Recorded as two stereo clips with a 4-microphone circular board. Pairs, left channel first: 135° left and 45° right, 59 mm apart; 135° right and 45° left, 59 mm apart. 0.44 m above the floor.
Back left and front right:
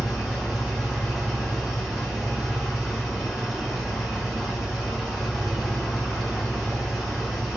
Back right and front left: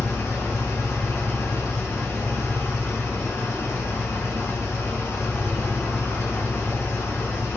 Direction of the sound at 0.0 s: 140° right.